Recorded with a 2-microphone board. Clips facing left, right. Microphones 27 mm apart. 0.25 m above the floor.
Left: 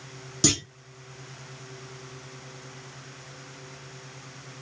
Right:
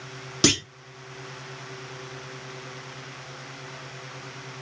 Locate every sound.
0.4 s a clunk: 35° right (ahead or behind), 1.2 m